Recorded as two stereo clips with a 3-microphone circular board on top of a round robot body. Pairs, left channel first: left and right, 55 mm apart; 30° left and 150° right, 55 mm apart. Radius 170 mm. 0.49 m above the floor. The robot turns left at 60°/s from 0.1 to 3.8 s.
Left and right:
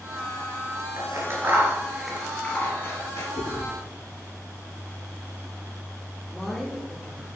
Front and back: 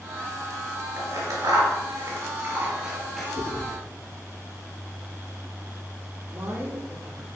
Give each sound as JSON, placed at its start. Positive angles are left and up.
{"t": 1.0, "sound": "scissors", "azimuth_deg": -115, "distance_m": 3.0}
{"t": 3.4, "sound": "chewing", "azimuth_deg": 70, "distance_m": 6.0}
{"t": 6.3, "sound": "a man speaking", "azimuth_deg": 175, "distance_m": 2.5}